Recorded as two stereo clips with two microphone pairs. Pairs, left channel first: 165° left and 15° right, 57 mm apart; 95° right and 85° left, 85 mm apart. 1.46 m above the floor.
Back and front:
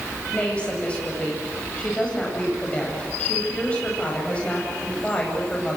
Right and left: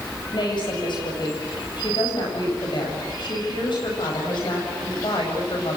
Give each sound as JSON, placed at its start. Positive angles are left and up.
{"t": 0.3, "sound": "a woman speaking", "azimuth_deg": -125, "distance_m": 9.0}